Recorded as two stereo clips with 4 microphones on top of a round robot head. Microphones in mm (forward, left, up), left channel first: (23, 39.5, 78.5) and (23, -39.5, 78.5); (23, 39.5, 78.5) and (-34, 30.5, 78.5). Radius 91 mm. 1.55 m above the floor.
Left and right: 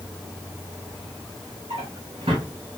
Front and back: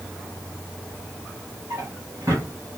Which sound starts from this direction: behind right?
A drawer, at 1.7 s.